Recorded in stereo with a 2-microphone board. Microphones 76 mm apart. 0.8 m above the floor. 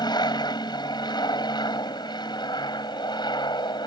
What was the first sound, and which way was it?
An aircraft, 65° left (ahead or behind).